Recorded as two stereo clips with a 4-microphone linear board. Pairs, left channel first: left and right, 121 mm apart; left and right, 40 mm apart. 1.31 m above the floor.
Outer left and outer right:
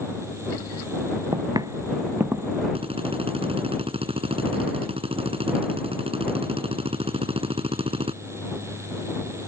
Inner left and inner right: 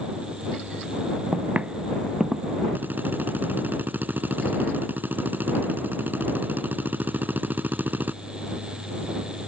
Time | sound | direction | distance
1.3 | footsteps | 35° right (ahead or behind) | ?
2.8 | a drill | 50° right (ahead or behind) | ?